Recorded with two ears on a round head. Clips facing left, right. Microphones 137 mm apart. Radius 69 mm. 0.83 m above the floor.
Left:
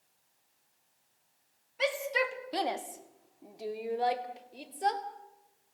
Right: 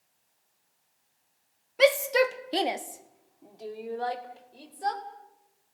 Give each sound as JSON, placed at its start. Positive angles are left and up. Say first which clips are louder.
{"t": 1.8, "sound": "a shout", "louder": "right 10 dB", "side_deg": -65, "distance_m": 1.3}